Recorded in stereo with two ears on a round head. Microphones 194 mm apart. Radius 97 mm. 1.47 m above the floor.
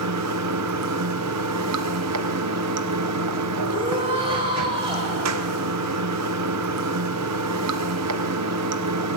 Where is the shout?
25° right (ahead or behind), 5 m.